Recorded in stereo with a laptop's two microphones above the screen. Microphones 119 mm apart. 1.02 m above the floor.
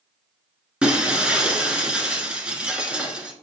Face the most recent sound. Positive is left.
turn(degrees=-10)  # may be behind; listen again after turning